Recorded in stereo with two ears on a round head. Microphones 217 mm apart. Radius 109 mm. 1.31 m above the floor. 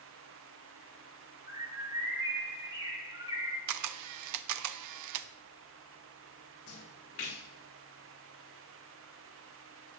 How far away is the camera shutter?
About 0.6 m.